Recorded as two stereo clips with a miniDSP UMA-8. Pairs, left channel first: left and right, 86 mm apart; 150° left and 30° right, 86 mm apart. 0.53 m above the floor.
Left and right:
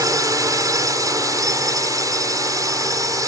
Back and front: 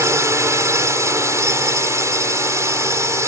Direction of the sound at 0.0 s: 70° right.